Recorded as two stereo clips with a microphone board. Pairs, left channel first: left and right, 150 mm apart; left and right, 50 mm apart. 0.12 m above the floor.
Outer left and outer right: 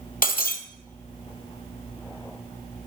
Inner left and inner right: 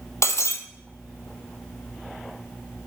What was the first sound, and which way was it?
Breaking glass, 70° left (ahead or behind).